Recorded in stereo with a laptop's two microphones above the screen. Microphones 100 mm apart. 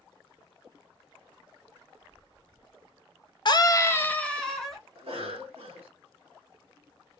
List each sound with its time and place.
3.5 s a scream: 45° left (ahead or behind), 0.6 m; by 4.8 s centre (ahead or behind), 1.1 m
5.0 s a cough: 75° right (ahead or behind), 2 m